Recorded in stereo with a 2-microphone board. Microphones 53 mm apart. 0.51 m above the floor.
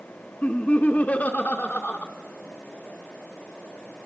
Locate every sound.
0.4 s laughter: 30° left (ahead or behind), 0.9 m